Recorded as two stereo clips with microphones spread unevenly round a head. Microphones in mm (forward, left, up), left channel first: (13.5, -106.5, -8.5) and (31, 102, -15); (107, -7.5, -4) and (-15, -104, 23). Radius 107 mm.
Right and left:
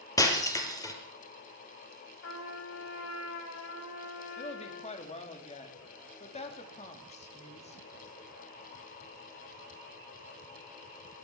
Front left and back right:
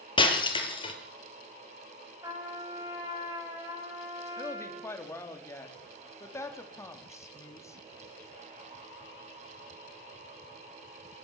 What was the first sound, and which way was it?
Breaking glass, 20° right.